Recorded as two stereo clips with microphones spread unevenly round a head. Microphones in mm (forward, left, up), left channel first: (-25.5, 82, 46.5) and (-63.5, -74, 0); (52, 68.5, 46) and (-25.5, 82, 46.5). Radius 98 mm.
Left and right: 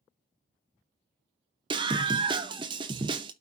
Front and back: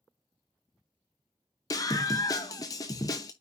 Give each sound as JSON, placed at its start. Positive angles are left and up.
{"t": 1.7, "sound": "a scream", "azimuth_deg": -30, "distance_m": 0.6}